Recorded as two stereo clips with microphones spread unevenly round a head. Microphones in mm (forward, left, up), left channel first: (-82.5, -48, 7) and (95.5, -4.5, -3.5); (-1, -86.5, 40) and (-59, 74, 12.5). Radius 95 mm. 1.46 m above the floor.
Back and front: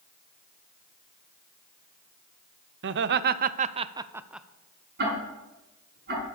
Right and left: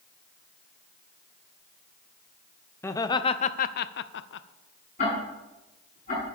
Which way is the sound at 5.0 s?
15° right.